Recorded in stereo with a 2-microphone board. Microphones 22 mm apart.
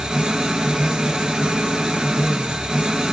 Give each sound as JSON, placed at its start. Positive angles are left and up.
{"t": 0.0, "sound": "an engine running", "side_deg": -30, "distance_m": 0.8}